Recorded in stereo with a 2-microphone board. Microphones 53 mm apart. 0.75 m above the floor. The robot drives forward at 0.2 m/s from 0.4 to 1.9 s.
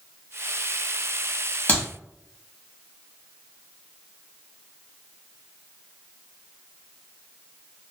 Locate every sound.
1.7 s a clap: 25° left (ahead or behind), 1.2 m